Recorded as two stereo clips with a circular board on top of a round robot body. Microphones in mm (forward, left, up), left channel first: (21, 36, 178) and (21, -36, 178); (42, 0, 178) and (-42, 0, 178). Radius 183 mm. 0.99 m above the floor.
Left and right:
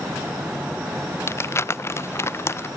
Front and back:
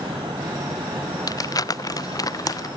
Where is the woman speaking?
No woman speaking in this recording.